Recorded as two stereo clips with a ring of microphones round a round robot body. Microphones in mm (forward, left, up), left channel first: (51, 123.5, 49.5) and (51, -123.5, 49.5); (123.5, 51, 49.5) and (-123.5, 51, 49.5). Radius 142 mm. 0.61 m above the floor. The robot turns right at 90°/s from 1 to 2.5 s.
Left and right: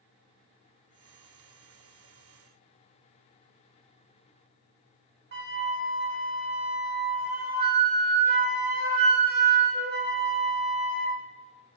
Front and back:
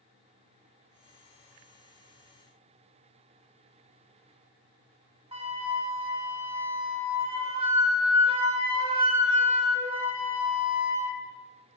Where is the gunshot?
No gunshot in this recording.